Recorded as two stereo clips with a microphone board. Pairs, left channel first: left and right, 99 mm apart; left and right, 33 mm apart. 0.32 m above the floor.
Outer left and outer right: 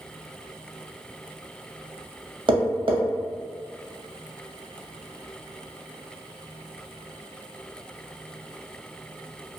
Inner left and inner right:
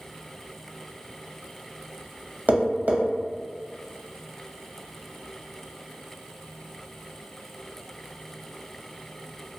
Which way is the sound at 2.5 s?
55° right (ahead or behind).